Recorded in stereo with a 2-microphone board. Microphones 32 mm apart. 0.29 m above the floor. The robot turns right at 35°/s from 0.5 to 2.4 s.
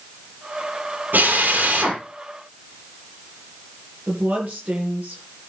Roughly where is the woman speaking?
Right.